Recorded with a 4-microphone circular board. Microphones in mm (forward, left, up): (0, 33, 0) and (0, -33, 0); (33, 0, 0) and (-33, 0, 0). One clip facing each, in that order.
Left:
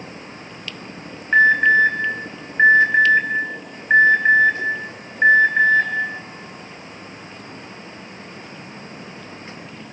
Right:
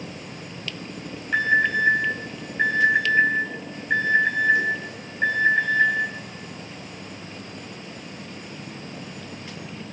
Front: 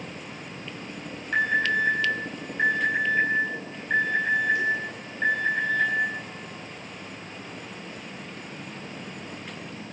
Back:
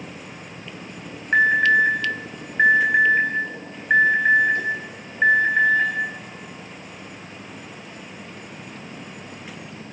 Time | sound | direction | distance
1.3 | an alarm | 135° left | 5.5 m